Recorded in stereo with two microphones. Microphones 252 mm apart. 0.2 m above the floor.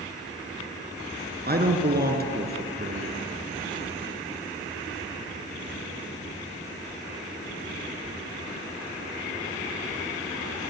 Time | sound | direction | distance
1.5 | a man speaking | 40° right (ahead or behind) | 3 m